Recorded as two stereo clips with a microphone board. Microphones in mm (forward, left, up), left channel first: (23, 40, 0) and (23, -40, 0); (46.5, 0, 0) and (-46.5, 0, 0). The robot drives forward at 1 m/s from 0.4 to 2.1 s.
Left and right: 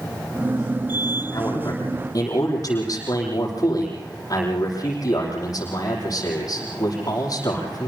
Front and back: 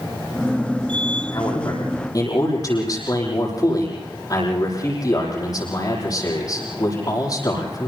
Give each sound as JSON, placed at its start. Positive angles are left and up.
{"t": 1.3, "sound": "a man speaking", "azimuth_deg": 45, "distance_m": 10.0}